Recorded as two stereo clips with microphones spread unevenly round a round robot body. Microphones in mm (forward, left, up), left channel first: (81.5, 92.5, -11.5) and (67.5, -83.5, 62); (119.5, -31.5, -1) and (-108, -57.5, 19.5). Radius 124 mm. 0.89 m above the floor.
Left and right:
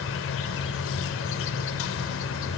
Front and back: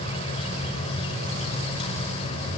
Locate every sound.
0.0 s an insect: 75° left, 1.0 m